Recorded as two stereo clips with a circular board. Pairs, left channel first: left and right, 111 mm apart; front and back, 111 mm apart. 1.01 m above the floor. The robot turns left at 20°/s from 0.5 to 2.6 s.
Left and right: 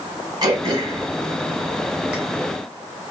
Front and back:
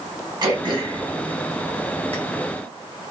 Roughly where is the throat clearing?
Behind right.